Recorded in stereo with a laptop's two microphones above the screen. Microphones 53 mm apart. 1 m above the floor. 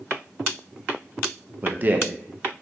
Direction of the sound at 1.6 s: 30° right (ahead or behind).